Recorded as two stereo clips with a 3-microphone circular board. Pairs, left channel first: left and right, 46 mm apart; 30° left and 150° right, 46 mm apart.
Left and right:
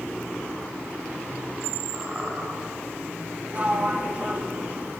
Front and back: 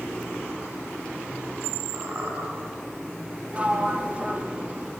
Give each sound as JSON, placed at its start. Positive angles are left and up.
{"t": 1.9, "sound": "a squeak", "azimuth_deg": -140, "distance_m": 3.0}
{"t": 3.5, "sound": "a sliding door", "azimuth_deg": -115, "distance_m": 0.9}